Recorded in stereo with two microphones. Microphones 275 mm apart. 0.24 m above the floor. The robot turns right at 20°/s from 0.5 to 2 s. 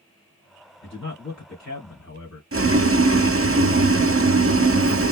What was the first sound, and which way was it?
A man speaking, 45° left (ahead or behind).